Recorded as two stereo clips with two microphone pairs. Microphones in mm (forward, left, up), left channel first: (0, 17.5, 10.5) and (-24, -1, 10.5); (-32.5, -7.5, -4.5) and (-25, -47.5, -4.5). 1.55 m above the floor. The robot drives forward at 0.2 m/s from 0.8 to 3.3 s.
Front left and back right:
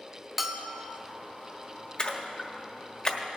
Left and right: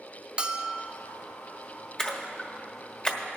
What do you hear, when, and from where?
0.4 s a bell: 75° right, 0.6 m; by 1.0 s 80° right, 0.6 m
2.0 s a splash: 50° left, 1.1 m; by 3.2 s 70° left, 1.1 m